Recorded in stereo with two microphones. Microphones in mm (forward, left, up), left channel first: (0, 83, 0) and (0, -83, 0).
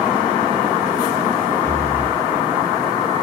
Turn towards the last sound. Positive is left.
turn(degrees=15)  # may be behind; listen again after turning